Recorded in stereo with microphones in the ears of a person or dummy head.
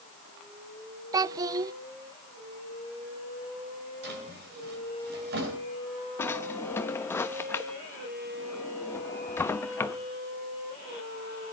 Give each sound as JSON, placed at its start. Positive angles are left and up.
{"t": 1.1, "sound": "a child speaking", "side_deg": -20, "distance_m": 0.6}
{"t": 4.0, "sound": "a drawer", "side_deg": -55, "distance_m": 10.0}
{"t": 6.2, "sound": "a drawer", "side_deg": 15, "distance_m": 1.0}